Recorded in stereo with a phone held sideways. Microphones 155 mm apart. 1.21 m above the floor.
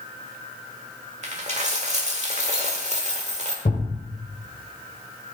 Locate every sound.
1.2 s a dropped coin: 50° right (ahead or behind), 1.3 m
3.6 s a thud: 60° left (ahead or behind), 1.6 m